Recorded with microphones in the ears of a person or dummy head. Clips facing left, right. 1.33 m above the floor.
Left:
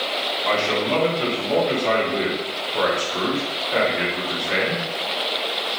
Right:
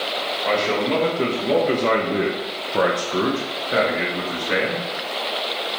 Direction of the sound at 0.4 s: 25° right (ahead or behind).